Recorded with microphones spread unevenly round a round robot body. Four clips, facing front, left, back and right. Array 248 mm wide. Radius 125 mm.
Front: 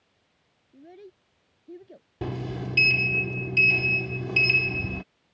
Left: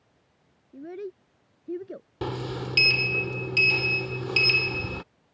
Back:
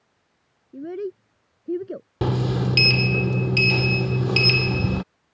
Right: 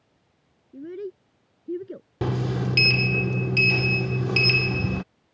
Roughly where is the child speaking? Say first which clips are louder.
Right 2 dB, back 17 dB; behind right.